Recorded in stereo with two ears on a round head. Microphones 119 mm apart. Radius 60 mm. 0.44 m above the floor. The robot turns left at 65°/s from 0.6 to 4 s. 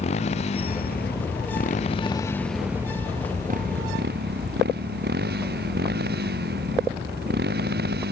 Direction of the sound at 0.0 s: 55° left (ahead or behind).